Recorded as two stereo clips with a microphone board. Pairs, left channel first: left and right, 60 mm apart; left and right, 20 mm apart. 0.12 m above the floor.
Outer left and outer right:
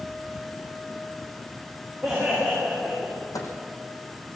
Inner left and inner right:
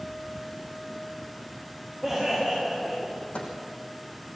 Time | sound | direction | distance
2.0 | laughter | 10° right (ahead or behind) | 8.5 m
3.3 | a microwave | 80° left | 4.5 m